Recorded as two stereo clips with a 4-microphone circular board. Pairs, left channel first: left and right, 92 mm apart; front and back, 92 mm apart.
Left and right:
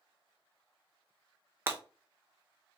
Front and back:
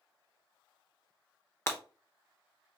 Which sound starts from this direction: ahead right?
Breaking glass, at 1.7 s.